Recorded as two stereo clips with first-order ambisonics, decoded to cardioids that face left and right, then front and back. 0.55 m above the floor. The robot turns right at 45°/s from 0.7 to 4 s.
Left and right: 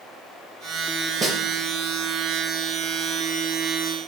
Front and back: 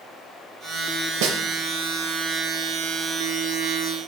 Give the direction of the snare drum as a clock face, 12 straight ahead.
6 o'clock.